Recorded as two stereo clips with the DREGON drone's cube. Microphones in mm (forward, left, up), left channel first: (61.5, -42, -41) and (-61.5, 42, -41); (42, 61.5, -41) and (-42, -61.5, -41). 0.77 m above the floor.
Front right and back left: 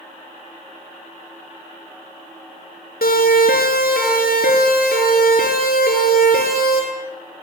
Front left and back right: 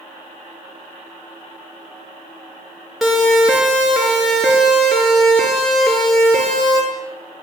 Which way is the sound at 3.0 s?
35° right.